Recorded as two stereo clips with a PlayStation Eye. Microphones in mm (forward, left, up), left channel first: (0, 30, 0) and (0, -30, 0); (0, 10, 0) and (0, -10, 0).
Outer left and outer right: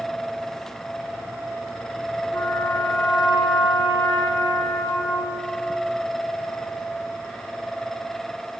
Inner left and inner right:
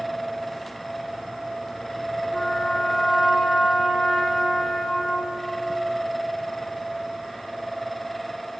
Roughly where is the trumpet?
Left.